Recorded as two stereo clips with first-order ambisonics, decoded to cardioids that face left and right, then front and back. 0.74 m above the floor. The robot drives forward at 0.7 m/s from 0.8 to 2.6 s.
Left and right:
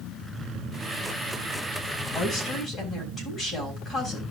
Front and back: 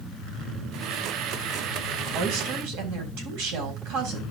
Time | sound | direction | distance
2.1 | a woman speaking | 175° left | 4.5 m